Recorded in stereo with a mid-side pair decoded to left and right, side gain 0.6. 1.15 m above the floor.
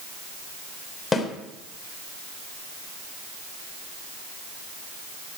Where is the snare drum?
20° left, 3 m.